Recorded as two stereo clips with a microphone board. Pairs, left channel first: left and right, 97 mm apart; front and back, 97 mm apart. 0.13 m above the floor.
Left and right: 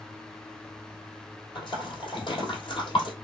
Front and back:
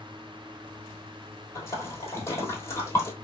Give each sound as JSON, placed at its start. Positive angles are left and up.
{"t": 1.6, "sound": "a splash", "azimuth_deg": 60, "distance_m": 1.7}